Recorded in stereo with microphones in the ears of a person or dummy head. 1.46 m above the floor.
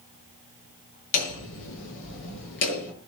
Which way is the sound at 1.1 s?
75° left (ahead or behind).